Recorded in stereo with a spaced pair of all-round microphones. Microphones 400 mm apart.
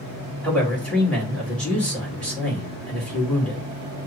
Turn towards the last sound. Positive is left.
turn(degrees=5)  # may be behind; listen again after turning